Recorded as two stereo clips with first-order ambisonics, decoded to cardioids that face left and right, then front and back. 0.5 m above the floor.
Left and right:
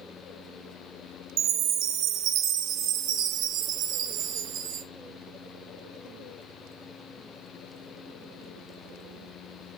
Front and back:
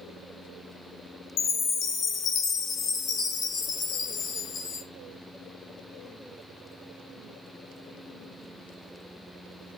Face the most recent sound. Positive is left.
turn(degrees=-55)